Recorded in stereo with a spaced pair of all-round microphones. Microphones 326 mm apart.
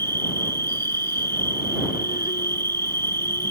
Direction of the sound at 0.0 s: 30° left (ahead or behind).